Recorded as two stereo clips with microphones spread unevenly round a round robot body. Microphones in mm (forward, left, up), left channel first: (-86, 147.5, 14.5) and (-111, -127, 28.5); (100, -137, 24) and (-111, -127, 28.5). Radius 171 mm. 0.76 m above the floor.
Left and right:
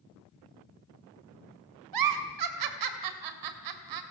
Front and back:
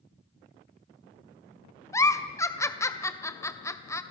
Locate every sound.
1.9 s a giggle: 80° right, 2 m